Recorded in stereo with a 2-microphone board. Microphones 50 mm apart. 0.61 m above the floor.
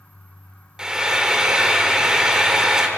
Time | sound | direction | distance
0.8 | frying | 15° right (ahead or behind) | 0.7 m